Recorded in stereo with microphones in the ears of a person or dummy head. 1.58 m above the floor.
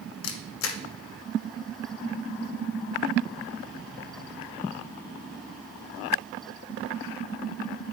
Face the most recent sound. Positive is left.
turn(degrees=70)  # may be behind; listen again after turning